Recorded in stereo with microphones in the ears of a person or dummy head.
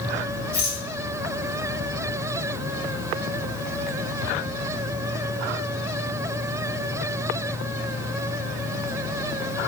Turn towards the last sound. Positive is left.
turn(degrees=45)  # may be behind; listen again after turning